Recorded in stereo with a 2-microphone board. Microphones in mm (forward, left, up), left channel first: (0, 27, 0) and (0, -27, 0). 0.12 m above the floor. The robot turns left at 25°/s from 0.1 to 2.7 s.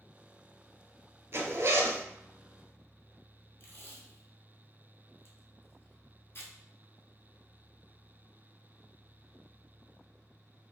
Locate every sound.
1.3 s a zipper: 55° right (ahead or behind), 0.6 m
3.6 s tape being pulled: 50° left (ahead or behind), 0.7 m